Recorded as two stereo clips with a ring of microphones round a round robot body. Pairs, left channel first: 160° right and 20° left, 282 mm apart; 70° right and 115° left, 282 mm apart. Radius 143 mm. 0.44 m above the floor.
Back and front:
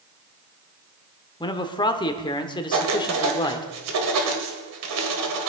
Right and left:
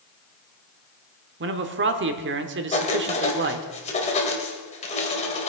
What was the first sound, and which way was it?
A man speaking, 135° left.